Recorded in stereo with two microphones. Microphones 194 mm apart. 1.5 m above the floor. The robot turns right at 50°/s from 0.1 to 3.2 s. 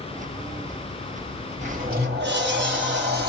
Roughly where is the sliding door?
Behind right.